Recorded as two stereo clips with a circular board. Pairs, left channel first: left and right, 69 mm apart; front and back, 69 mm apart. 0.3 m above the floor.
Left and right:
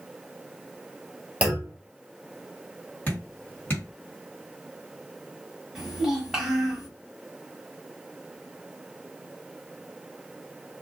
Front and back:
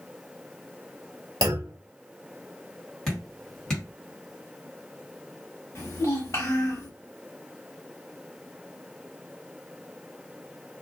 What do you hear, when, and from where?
1.4 s a clunk: 160° right, 0.9 m
3.1 s dripping: 70° left, 1.8 m
5.8 s a child speaking: 10° right, 1.3 m